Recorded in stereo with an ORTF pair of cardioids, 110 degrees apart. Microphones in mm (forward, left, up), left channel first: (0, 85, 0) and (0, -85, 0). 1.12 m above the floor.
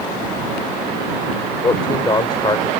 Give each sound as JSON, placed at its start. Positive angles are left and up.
{"t": 1.6, "sound": "a man speaking", "azimuth_deg": 25}